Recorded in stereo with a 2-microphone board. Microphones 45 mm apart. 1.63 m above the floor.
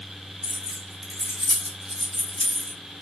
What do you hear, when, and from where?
0.4 s keys jangling: 15° right (ahead or behind), 1.7 m